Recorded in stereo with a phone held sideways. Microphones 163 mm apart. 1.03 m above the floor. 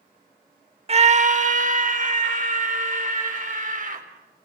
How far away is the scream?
About 0.6 m.